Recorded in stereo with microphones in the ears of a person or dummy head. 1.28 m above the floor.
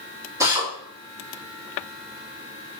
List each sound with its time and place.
0.4 s a drill: 10° right (ahead or behind), 3 m